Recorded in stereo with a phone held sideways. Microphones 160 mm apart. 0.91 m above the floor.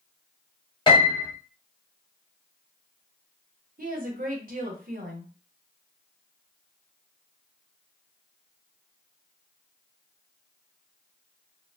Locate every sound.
0.9 s a piano: 30° left (ahead or behind), 0.8 m
3.8 s a woman speaking: 65° right (ahead or behind), 0.9 m